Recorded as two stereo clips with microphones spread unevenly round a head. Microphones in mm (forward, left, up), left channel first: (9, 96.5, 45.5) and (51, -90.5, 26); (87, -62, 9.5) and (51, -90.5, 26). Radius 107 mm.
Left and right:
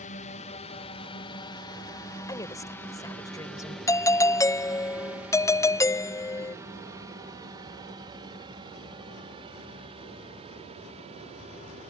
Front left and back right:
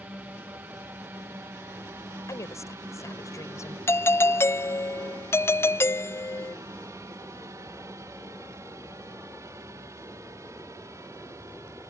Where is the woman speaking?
30° left.